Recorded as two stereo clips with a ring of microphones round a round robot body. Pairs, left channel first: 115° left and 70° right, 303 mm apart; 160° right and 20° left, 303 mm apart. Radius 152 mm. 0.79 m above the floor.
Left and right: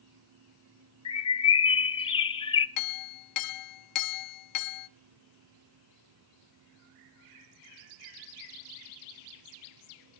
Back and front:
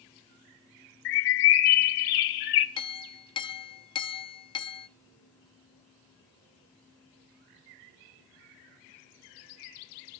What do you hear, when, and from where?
1.1 s a bird: 175° right, 1.1 m
2.8 s a clink: 130° left, 0.7 m